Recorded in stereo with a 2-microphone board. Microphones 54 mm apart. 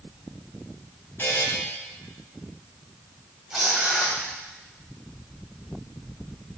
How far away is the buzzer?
About 3 m.